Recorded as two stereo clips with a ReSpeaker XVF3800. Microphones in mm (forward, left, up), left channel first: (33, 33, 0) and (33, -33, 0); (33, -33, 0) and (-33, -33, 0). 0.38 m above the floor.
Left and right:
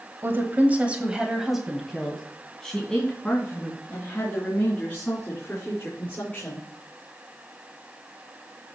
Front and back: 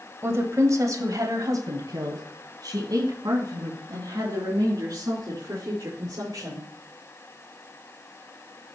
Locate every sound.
0.2 s a woman speaking: 135° right, 1.6 m; by 6.6 s 150° left, 5.5 m